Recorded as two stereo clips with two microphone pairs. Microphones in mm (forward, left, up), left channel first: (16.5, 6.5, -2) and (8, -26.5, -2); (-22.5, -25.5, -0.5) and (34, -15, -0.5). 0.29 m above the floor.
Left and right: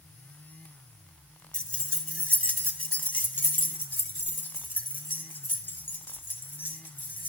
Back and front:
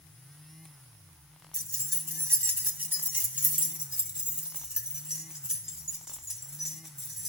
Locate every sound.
1.5 s keys jangling: 30° left, 1.6 m; by 7.3 s 90° left, 4 m